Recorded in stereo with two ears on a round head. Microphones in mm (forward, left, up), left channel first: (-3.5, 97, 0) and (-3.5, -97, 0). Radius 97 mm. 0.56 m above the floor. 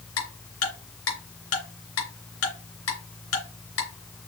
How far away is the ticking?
About 3 m.